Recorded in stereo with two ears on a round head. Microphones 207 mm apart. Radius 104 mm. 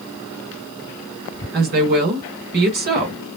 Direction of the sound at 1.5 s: 45° right (ahead or behind).